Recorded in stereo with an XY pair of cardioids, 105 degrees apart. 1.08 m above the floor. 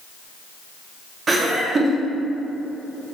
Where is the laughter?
40° right, 0.7 m.